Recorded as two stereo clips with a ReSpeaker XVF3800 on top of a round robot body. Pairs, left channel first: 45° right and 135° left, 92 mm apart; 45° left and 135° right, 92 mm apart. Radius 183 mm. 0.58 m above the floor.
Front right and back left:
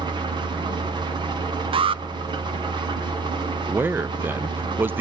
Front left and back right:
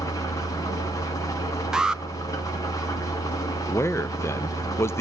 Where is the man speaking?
80° left, 0.7 m.